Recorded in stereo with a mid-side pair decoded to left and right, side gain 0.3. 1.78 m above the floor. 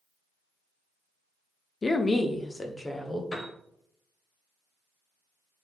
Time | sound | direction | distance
1.8 | a woman speaking | 45° left | 0.7 m
3.3 | a piano | 35° left | 1.4 m